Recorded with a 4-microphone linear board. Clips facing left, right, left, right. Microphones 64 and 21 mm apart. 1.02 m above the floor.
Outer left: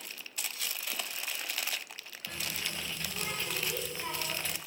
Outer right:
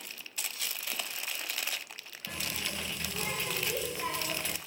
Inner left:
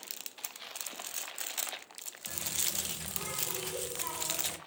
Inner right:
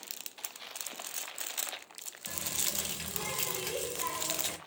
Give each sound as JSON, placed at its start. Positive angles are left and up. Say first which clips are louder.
{"t": 2.3, "sound": "a running tap", "louder": "outer right 1 dB, even", "side_deg": -70, "distance_m": 0.9}